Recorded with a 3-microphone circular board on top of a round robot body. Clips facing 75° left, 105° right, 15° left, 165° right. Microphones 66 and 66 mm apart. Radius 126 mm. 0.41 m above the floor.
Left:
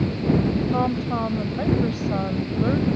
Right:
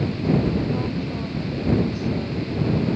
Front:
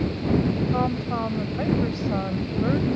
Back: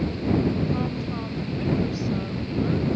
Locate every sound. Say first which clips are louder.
0.7 s a woman speaking: left 4 dB, front 4 dB; 60° left